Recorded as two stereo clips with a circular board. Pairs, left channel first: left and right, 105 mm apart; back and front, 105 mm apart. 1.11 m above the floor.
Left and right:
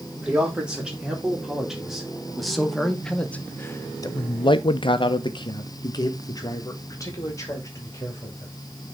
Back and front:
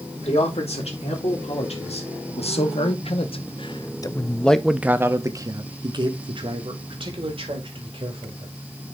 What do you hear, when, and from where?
0.2 s a man speaking: 170° right, 2.5 m; by 8.5 s 30° left, 2.5 m